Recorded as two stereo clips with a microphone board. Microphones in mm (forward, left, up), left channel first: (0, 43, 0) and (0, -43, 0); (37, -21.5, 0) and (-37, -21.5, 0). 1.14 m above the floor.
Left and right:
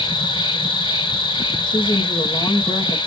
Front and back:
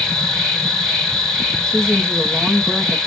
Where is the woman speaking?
80° left, 1.9 m.